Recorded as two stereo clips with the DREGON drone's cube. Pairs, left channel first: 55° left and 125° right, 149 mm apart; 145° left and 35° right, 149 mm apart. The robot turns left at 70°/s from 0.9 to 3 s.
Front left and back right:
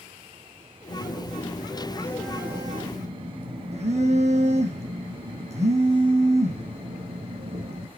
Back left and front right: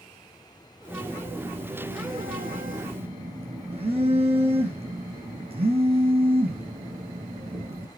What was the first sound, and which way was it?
A phone buzzing, 65° left.